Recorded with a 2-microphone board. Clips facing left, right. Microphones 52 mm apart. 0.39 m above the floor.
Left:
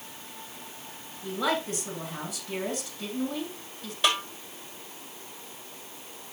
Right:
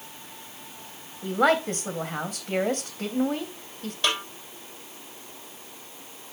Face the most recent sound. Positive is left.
turn(degrees=5)  # may be behind; listen again after turning